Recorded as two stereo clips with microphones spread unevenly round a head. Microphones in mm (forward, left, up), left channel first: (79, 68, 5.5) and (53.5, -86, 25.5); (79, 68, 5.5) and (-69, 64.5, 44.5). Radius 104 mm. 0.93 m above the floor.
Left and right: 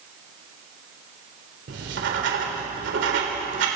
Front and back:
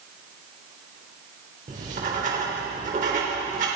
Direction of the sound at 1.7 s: 120° right.